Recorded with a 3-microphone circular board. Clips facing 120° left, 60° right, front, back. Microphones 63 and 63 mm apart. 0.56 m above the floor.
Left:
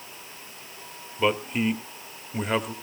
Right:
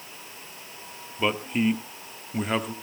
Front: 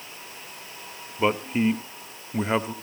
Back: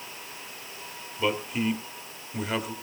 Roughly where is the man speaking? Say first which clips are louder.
Left 1 dB, front 4 dB; ahead left.